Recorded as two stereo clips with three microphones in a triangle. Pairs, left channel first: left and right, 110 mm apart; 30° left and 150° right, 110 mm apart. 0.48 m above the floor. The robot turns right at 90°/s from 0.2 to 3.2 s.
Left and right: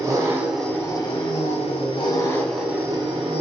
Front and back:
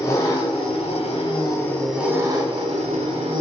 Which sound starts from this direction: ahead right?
An engine running, at 0.0 s.